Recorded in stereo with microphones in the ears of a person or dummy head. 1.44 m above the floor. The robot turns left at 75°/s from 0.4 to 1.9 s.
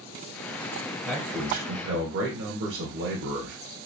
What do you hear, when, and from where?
1.1 s a man speaking: 5° right, 0.9 m; by 3.6 s 65° right, 0.9 m